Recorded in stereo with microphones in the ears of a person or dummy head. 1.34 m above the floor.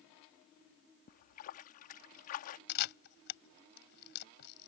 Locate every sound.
1.1 s a splash: 45° left (ahead or behind)
2.7 s a camera shutter: 60° left (ahead or behind)